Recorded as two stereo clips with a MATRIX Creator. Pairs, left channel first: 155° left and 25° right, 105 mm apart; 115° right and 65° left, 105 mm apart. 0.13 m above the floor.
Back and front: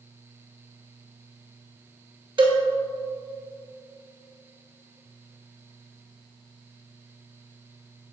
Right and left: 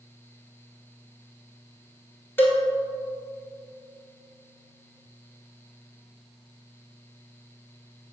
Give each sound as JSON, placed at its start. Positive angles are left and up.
{"t": 2.4, "sound": "a cowbell", "azimuth_deg": -45, "distance_m": 1.3}